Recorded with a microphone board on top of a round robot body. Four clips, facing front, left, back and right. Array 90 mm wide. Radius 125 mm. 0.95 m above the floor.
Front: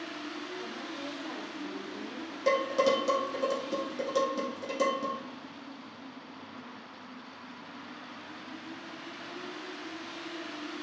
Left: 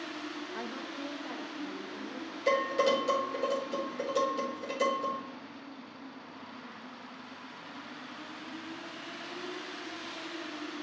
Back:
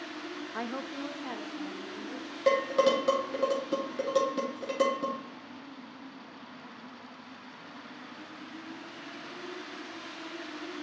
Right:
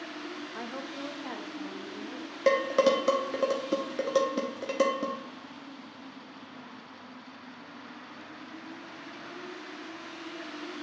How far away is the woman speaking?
About 0.6 m.